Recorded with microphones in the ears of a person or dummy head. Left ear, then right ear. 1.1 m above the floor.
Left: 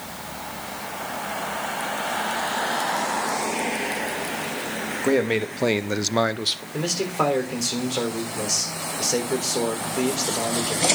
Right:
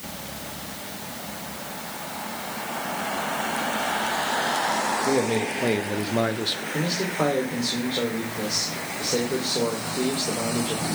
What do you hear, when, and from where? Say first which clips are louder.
5.0 s a man speaking: left 1 dB; 50° left (ahead or behind), 1.4 m; by 6.6 s 20° left (ahead or behind), 1.0 m
6.7 s a man speaking: left 1 dB; 55° left (ahead or behind), 3.5 m